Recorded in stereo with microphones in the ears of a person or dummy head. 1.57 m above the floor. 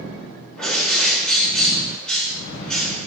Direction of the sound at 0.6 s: Centre (ahead or behind).